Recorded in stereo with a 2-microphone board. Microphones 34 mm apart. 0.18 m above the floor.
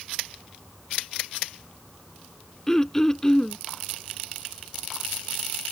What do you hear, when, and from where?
2.7 s throat clearing: 15° left (ahead or behind)